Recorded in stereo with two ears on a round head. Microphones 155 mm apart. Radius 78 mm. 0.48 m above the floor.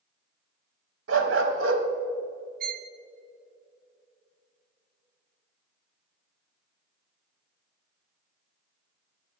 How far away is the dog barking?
About 1.3 m.